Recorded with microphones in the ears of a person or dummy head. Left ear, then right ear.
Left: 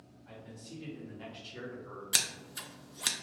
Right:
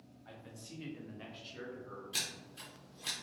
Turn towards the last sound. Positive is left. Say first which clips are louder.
# left 7 dB
turn(degrees=65)  # may be behind; listen again after turning